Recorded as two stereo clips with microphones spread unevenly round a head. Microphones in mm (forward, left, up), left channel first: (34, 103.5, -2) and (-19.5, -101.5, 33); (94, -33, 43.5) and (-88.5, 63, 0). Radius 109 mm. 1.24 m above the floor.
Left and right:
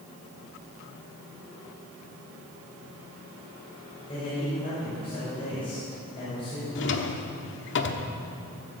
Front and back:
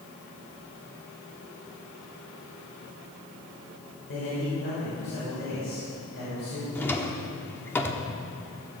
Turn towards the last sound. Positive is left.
turn(degrees=45)